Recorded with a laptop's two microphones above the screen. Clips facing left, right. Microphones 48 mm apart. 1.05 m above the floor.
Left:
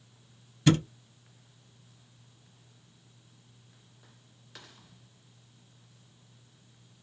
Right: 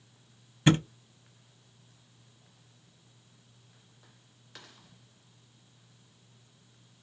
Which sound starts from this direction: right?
A thud, at 0.7 s.